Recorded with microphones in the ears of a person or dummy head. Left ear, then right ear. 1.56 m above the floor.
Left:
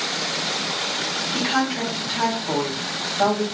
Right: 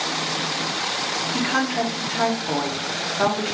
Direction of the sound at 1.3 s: 25° right (ahead or behind).